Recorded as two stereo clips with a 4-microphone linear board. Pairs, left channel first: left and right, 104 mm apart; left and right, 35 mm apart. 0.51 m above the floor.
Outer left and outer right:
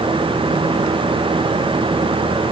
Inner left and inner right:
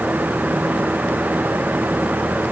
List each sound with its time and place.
Only background noise.